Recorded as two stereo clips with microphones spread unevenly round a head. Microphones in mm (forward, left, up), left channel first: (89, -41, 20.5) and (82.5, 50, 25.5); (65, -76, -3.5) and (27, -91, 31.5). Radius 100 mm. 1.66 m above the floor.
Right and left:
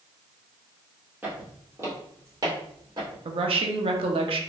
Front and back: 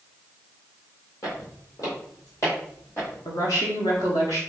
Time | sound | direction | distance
1.2 | footsteps | 70° left | 1.7 m
3.2 | a woman speaking | 90° left | 0.7 m